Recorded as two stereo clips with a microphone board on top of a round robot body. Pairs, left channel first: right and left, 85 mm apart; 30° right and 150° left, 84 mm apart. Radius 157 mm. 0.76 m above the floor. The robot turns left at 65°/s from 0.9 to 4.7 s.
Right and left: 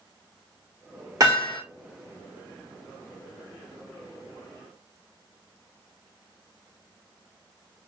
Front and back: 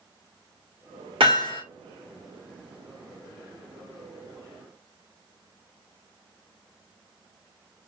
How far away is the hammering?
About 2 m.